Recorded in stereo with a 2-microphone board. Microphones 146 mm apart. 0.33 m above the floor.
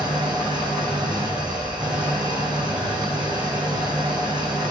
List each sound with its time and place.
0.0 s an engine running: 30° right (ahead or behind), 6 m